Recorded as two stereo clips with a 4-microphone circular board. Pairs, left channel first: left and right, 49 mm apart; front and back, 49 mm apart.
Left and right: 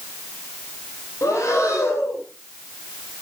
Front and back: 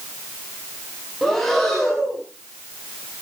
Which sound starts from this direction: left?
Breathing, at 1.2 s.